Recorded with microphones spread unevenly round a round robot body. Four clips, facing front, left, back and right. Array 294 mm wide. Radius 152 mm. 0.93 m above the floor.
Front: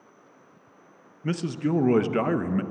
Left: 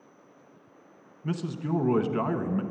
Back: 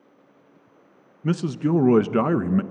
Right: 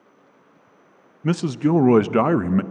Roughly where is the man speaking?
Behind right.